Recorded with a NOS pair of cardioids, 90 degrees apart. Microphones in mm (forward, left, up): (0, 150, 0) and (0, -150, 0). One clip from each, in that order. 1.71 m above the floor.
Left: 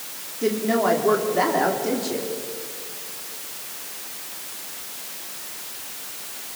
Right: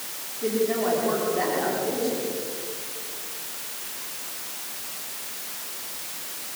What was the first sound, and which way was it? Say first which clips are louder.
A woman speaking: left 3 dB; 60° left.